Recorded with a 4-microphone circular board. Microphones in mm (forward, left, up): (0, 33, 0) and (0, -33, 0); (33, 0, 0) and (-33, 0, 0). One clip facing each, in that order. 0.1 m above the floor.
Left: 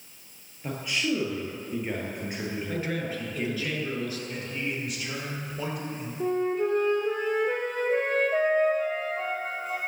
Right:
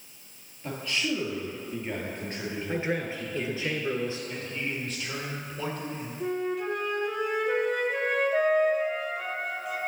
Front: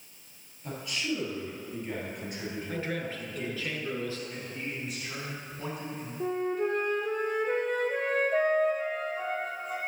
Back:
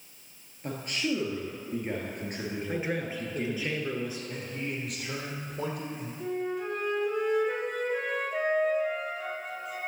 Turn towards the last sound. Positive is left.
turn(degrees=40)